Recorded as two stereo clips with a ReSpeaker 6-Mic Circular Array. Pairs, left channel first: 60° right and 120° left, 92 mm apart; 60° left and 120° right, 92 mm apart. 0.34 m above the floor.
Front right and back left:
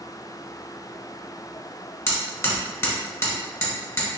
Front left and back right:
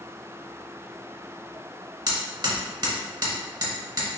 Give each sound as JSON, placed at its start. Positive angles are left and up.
{"t": 2.1, "sound": "hammering", "azimuth_deg": -105, "distance_m": 1.2}